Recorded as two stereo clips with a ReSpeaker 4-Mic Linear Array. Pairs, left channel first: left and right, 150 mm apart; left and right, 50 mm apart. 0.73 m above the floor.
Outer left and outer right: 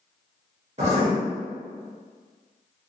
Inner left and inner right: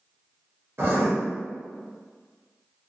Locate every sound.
0.8 s writing: 45° right (ahead or behind), 1.0 m